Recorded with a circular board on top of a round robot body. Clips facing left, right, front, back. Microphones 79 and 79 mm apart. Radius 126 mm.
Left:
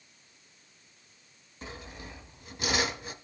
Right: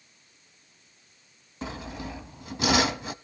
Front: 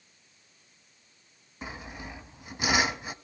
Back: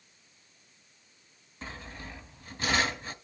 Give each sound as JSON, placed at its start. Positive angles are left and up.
{"t": 1.6, "sound": "sawing", "azimuth_deg": -80, "distance_m": 0.9}